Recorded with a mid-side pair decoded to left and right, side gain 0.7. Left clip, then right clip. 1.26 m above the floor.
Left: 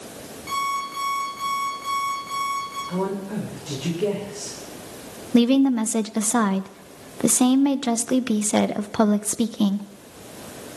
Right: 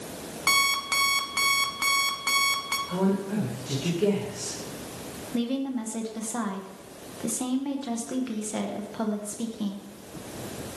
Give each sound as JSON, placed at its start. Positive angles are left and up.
{"t": 0.5, "sound": "an alarm clock", "azimuth_deg": -55, "distance_m": 2.5}
{"t": 2.9, "sound": "a woman speaking", "azimuth_deg": 10, "distance_m": 3.5}
{"t": 5.3, "sound": "a woman speaking", "azimuth_deg": 45, "distance_m": 0.9}